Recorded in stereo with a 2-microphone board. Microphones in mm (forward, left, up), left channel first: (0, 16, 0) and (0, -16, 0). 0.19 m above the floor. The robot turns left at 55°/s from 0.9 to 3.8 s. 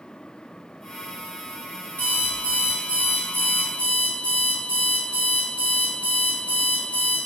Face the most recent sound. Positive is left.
turn(degrees=-25)